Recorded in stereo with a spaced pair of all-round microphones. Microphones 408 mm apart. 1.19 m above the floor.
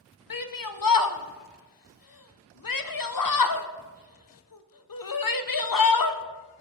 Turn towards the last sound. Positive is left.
turn(degrees=55)  # may be behind; listen again after turning